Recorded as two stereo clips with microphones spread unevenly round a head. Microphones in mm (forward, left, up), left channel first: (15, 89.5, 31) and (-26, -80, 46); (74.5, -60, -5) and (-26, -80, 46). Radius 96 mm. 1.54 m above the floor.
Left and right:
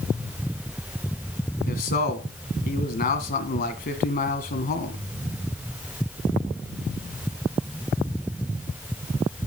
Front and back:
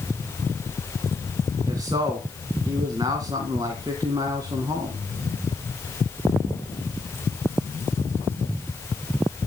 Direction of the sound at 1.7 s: 115° left.